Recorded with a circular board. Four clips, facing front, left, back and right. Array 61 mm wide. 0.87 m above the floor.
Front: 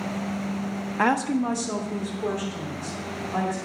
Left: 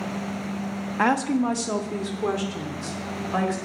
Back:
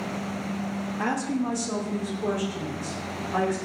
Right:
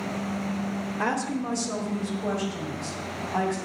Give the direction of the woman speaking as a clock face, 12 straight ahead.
10 o'clock.